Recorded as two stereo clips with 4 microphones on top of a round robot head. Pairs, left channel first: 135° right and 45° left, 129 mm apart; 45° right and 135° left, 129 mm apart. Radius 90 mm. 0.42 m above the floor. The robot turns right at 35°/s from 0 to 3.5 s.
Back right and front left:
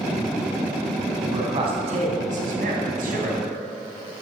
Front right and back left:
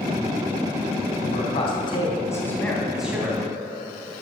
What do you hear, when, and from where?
1.2 s a man speaking: 15° right, 3 m; by 3.6 s 65° left, 3 m